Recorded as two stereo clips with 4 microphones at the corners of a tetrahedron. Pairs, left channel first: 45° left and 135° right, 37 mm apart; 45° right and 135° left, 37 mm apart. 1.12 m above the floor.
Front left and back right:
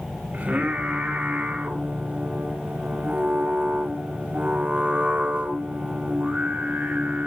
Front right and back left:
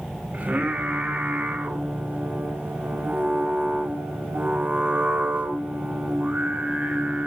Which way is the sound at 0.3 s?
170° right.